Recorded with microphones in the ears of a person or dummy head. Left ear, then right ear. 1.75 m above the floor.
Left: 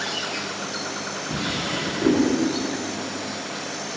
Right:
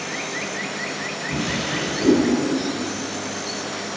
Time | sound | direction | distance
1.3 | a drawer | 50° left (ahead or behind) | 2 m